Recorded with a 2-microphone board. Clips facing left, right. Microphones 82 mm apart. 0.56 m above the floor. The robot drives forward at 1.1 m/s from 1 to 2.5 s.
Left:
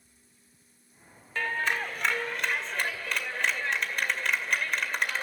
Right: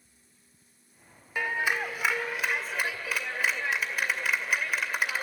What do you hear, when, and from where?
1.4 s a clap: 15° right (ahead or behind), 1.2 m; by 5.2 s 5° right (ahead or behind), 2 m